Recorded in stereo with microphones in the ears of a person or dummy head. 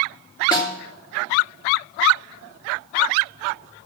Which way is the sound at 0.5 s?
40° left (ahead or behind).